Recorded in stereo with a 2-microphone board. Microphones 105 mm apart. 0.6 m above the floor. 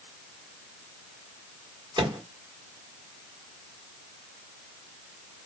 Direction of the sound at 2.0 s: 50° right (ahead or behind).